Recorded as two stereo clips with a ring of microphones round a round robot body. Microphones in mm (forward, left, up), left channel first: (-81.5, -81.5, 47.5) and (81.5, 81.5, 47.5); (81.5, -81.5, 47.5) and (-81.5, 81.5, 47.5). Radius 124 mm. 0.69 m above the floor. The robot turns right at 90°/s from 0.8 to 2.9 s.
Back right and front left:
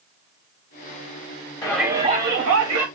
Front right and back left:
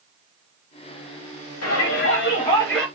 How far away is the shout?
About 1.9 m.